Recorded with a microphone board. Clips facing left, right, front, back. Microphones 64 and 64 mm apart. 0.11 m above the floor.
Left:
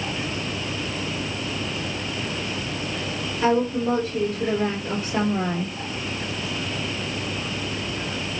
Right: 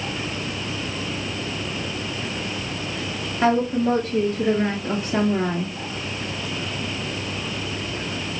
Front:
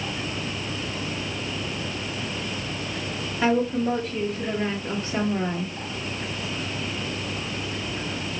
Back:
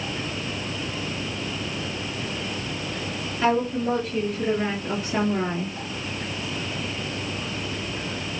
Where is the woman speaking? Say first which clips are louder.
Right 2 dB, even; 70° right, 2.5 m; by 5.8 s 125° right, 3 m.